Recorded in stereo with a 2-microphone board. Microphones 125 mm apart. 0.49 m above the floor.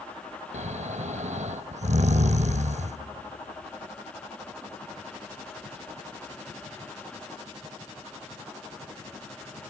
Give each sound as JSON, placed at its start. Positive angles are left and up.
{"t": 0.5, "sound": "snoring", "side_deg": -65, "distance_m": 0.5}